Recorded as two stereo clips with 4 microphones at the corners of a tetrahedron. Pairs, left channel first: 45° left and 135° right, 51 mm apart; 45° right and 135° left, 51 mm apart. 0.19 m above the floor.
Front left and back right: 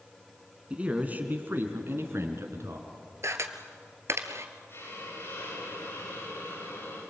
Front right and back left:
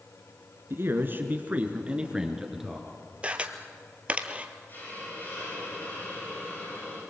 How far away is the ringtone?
I don't hear a ringtone.